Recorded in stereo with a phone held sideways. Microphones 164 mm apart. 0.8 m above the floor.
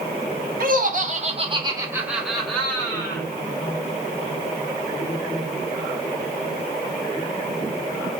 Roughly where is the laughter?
Right.